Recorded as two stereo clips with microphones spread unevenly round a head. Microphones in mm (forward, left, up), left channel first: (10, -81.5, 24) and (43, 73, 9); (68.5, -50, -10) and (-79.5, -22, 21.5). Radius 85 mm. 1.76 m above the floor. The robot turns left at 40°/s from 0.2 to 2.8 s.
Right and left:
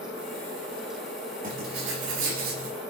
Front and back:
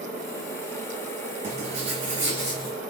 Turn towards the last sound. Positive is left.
turn(degrees=75)